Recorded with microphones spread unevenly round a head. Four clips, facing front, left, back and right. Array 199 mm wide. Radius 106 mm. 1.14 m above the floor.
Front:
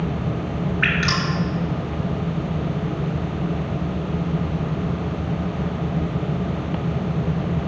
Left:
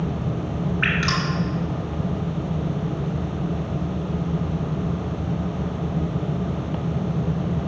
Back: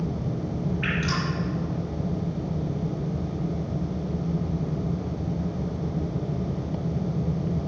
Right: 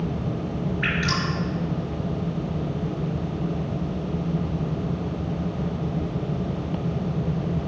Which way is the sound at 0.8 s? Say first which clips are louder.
Left 2 dB, front 7 dB; 50° left.